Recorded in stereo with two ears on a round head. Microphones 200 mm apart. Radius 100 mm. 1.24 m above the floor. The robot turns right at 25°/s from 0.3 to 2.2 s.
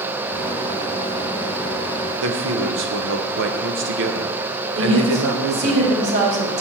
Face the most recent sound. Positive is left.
turn(degrees=-50)  # may be behind; listen again after turning